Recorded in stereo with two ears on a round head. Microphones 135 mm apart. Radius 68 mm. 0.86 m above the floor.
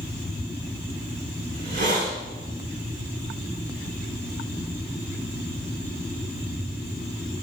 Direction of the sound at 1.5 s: 60° right (ahead or behind).